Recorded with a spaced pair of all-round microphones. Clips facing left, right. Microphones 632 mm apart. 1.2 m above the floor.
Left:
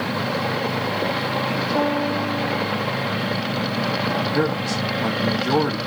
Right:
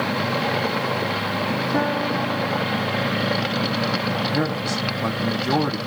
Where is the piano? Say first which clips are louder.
Left 3 dB; 75° right (ahead or behind), 2 m.